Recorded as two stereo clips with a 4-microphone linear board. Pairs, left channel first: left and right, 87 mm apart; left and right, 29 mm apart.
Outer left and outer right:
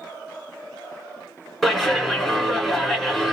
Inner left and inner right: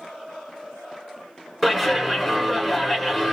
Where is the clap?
5° left (ahead or behind), 2.5 m.